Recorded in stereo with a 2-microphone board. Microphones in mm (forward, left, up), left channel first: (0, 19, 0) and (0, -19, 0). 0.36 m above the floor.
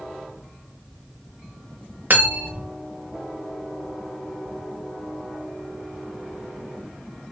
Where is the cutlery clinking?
55° right (ahead or behind), 0.8 m.